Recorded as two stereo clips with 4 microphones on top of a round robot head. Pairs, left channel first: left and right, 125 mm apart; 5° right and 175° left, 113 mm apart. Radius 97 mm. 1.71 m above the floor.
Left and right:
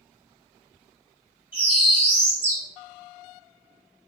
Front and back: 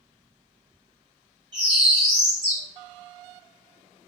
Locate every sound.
1.5 s a bird: 155° right, 0.7 m